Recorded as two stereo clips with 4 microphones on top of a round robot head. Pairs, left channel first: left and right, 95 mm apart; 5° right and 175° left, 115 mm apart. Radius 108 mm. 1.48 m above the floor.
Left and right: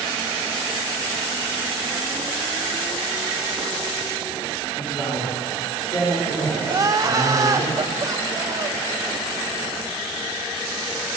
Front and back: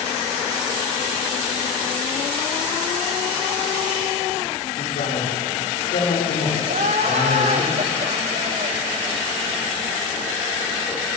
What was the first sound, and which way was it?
A man speaking, 20° left.